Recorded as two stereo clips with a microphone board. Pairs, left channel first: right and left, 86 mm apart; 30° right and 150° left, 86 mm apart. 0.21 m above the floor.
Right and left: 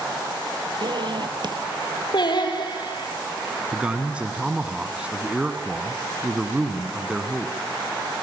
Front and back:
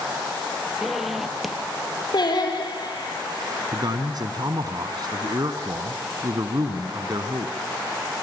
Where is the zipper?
60° left, 3 m.